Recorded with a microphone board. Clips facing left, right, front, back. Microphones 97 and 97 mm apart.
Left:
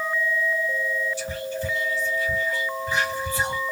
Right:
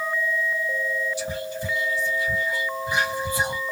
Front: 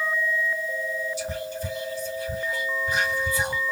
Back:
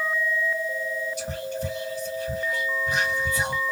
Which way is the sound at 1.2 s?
160° right.